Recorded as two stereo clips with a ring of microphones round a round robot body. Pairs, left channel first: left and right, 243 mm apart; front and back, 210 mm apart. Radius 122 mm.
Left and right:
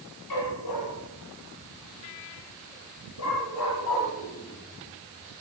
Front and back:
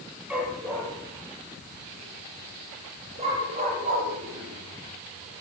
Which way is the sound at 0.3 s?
95° left.